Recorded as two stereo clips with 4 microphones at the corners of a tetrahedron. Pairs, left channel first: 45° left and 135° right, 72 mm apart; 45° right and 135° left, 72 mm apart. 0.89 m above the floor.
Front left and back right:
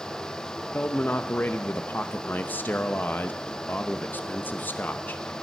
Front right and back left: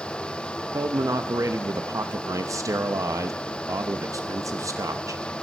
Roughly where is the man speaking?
Left.